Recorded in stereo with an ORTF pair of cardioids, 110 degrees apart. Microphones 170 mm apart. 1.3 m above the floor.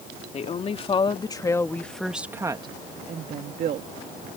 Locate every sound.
0.3 s a woman speaking: 40° left; by 3.9 s 60° right